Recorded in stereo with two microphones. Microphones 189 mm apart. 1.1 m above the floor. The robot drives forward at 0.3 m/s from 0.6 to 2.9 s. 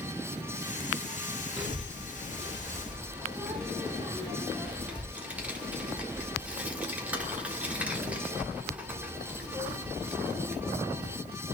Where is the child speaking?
5° right (ahead or behind), 1.8 m.